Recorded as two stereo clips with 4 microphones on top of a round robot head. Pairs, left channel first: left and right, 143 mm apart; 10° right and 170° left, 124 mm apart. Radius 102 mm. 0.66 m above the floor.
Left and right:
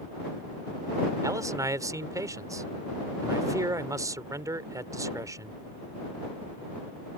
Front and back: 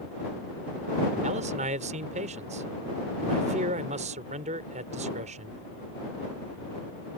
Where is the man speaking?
155° right.